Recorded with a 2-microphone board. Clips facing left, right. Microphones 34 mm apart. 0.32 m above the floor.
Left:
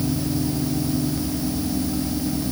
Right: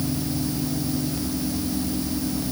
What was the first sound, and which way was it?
Only background noise.